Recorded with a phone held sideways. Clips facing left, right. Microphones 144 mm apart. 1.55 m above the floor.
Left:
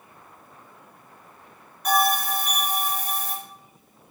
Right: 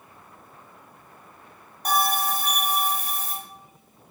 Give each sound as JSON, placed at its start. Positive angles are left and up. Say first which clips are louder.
{"t": 1.9, "sound": "a bell", "louder": "left 2 dB", "side_deg": -30, "distance_m": 0.9}